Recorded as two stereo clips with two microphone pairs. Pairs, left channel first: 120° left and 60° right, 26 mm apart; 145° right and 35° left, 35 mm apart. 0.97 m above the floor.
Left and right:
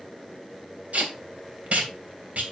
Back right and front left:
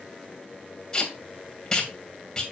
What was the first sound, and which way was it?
Tape being pulled, 75° right.